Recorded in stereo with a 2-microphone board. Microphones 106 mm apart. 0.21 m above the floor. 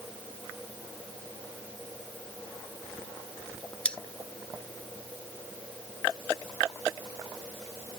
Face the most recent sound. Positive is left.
turn(degrees=10)  # may be behind; listen again after turning